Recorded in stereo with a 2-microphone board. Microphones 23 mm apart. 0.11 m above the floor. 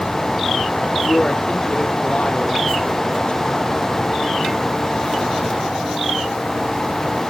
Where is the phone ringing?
I don't hear a phone ringing.